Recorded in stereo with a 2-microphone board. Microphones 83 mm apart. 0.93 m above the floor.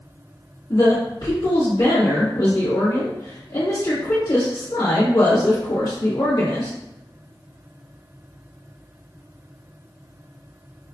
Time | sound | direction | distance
0.7 | a woman speaking | 60° left (ahead or behind) | 1.3 m